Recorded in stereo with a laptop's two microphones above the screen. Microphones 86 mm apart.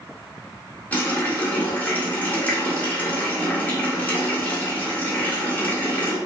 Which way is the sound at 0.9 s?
20° left (ahead or behind).